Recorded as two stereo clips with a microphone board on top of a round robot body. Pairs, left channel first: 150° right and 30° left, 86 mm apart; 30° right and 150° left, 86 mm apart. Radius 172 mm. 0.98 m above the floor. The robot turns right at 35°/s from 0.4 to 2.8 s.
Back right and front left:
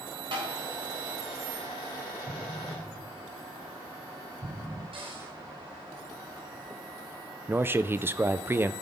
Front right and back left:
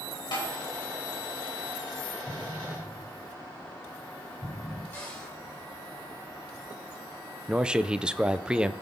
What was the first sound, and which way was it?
Tapping, straight ahead.